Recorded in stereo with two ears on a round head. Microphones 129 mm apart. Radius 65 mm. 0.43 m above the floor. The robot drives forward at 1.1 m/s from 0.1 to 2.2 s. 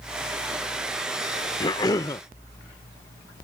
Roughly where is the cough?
Left.